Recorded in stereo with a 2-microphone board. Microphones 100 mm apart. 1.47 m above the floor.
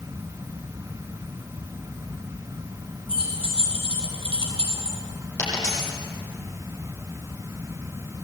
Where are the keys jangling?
70° right (ahead or behind), 7 m; by 5.0 s 75° right (ahead or behind), 4 m.